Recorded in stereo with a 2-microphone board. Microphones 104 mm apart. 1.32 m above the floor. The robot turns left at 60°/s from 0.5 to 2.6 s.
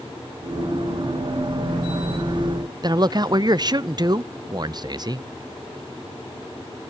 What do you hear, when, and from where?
2.8 s a man speaking: 40° right (ahead or behind), 0.6 m